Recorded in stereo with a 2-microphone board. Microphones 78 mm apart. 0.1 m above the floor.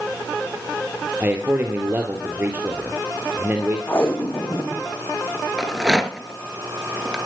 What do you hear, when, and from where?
1.2 s a man speaking: 25° right (ahead or behind), 2 m
3.9 s tape being pulled: 30° left (ahead or behind), 3 m
5.6 s a rattle: 5° right (ahead or behind), 1.7 m